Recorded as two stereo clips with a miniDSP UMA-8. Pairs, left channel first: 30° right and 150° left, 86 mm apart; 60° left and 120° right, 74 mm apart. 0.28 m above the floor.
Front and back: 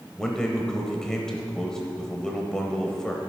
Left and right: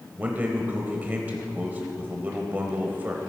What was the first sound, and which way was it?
A man speaking, 105° right.